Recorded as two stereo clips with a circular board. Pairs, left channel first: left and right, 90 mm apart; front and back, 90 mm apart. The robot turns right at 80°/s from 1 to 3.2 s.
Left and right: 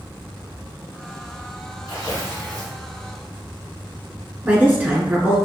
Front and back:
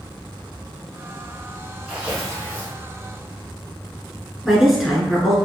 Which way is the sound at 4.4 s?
95° right.